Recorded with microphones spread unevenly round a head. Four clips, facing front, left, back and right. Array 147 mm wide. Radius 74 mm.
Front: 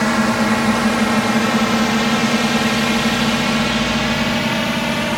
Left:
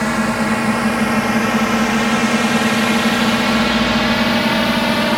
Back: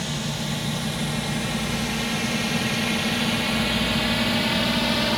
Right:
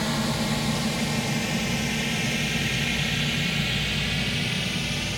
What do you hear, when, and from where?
0.0 s a drone: 35° left; by 5.2 s 80° left